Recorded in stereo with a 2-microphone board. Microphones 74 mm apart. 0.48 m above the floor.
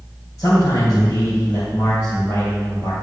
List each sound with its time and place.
0.4 s a man speaking: 45° left (ahead or behind), 3 m